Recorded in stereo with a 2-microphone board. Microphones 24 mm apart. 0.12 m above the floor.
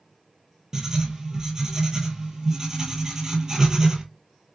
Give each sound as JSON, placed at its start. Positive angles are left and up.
{"t": 0.7, "sound": "writing", "side_deg": -30, "distance_m": 0.5}